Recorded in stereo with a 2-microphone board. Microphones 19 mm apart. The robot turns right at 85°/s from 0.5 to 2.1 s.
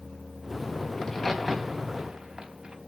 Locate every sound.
1.0 s a crack: 45° left (ahead or behind), 4 m; by 2.8 s 50° right (ahead or behind), 4 m